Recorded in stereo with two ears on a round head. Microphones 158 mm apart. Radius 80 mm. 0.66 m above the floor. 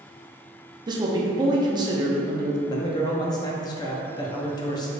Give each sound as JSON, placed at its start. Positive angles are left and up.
{"t": 0.9, "sound": "a man speaking", "side_deg": -25, "distance_m": 0.6}
{"t": 2.7, "sound": "a man speaking", "side_deg": 25, "distance_m": 0.5}